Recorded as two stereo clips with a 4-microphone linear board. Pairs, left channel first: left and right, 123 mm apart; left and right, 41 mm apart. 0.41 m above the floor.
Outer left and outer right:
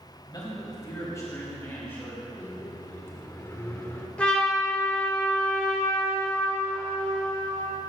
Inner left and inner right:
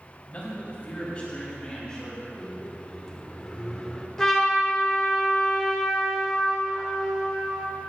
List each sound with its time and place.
0.3 s a man speaking: 35° left (ahead or behind), 2.5 m; by 2.3 s 15° left (ahead or behind), 3 m
2.4 s a microwave: 15° left (ahead or behind), 0.7 m
4.2 s a trumpet: 10° left (ahead or behind), 1.9 m